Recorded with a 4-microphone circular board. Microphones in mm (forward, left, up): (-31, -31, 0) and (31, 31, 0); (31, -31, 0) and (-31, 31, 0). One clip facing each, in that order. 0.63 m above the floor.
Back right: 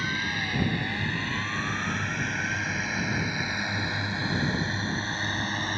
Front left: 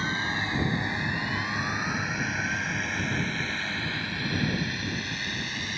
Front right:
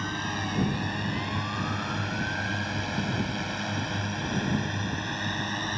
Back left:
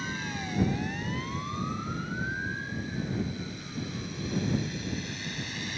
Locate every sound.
0.0 s a drone: 15° right; by 5.8 s 85° right